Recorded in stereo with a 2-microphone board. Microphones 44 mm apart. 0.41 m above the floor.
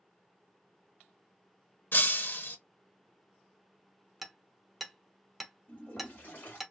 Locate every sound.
1.9 s breaking glass: 50° left (ahead or behind), 0.6 m
4.2 s hammering: 5° right (ahead or behind), 0.5 m
5.7 s a toilet flushing: 40° left (ahead or behind), 1.8 m